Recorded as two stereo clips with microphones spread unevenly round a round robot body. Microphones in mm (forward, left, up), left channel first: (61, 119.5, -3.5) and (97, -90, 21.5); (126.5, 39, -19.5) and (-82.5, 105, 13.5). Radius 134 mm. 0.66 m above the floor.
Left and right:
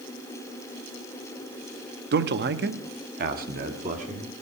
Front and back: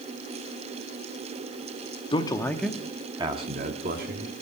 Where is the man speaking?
70° right, 1.0 m; by 4.3 s 145° right, 1.5 m.